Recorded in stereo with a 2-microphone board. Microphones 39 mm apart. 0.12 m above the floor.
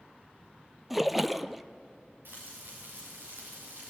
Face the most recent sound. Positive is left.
turn(degrees=-70)  # may be behind; listen again after turning